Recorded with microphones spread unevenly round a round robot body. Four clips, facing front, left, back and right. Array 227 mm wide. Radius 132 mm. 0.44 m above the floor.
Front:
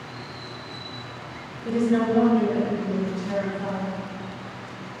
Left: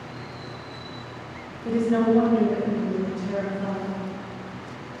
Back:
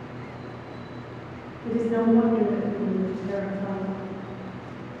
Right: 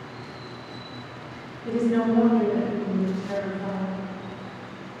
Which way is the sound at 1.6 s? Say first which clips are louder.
Left 2 dB, even; 100° left.